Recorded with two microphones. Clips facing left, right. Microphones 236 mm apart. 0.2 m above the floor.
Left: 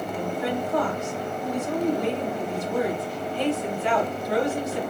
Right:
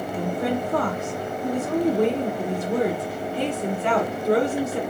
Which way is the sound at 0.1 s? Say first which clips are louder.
Right 3 dB; 50° right (ahead or behind).